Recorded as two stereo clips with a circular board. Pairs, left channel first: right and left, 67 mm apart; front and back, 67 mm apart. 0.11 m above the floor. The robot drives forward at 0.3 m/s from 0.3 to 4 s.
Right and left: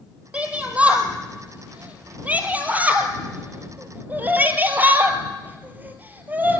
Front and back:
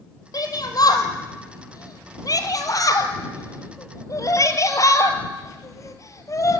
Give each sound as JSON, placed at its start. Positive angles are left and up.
{"t": 0.3, "sound": "a shout", "azimuth_deg": 20, "distance_m": 3.0}